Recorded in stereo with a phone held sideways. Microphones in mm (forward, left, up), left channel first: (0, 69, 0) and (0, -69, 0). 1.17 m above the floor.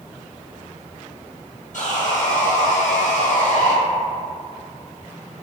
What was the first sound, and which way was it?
Sawing, 65° left (ahead or behind).